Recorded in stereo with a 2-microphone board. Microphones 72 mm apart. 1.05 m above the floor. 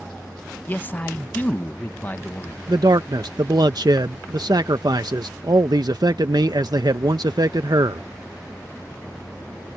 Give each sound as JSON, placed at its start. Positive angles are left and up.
{"t": 0.7, "sound": "a man speaking", "side_deg": 25}
{"t": 2.7, "sound": "a man speaking", "side_deg": -70}